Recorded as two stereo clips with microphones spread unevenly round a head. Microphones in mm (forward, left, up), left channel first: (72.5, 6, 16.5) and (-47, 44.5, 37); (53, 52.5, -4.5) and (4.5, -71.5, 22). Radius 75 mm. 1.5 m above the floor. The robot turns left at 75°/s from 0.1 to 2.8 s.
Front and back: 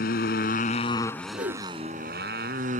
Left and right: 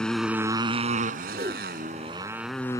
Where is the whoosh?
150° right; by 1.7 s straight behind.